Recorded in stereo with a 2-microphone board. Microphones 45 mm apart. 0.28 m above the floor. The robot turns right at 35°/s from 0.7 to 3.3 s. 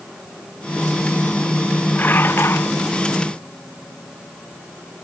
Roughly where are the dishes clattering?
Left.